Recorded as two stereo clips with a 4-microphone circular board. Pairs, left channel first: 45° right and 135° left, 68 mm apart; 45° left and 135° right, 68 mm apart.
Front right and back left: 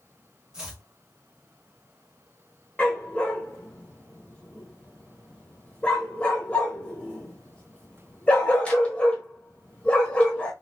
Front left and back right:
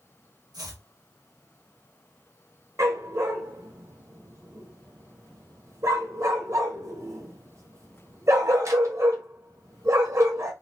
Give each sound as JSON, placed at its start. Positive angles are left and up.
{"t": 0.5, "sound": "chopping", "azimuth_deg": -145, "distance_m": 1.7}
{"t": 2.8, "sound": "a dog barking", "azimuth_deg": -110, "distance_m": 1.4}